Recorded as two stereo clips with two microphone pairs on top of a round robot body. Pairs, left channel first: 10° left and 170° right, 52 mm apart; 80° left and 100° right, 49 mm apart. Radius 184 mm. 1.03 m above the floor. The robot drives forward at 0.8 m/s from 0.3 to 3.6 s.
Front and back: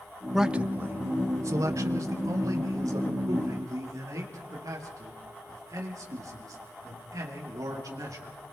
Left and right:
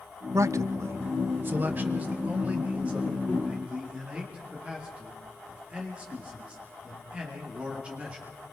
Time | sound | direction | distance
0.3 | a man speaking | 85° right | 0.6 m